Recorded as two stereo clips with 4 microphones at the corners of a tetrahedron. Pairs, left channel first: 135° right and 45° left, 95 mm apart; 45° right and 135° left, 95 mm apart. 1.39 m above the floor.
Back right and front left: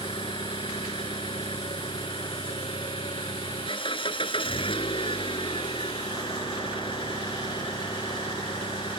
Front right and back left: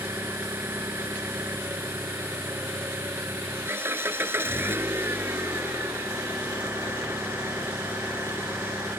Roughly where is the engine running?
Behind.